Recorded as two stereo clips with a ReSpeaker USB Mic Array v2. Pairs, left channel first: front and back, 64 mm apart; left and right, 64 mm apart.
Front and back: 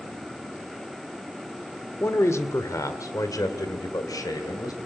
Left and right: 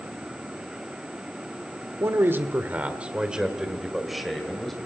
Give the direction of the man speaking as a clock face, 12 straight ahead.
2 o'clock.